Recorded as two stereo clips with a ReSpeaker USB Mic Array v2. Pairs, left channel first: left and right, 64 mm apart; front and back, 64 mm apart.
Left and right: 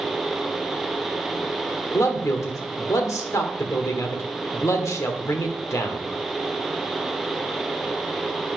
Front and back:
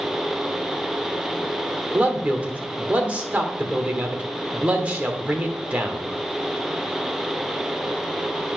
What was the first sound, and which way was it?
A man speaking, 115° left.